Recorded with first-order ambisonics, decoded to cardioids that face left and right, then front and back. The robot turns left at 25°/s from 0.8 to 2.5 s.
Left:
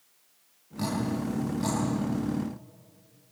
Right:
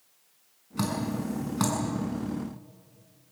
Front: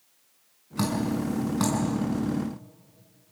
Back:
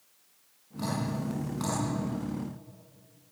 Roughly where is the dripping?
Ahead right.